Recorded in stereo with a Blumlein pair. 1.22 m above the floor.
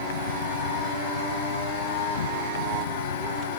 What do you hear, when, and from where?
0.0 s an insect: 65° left